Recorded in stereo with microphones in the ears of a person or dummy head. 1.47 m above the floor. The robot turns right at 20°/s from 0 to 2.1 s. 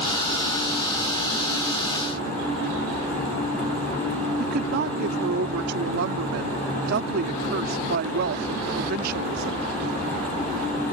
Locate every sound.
4.4 s a woman speaking: 60° right (ahead or behind)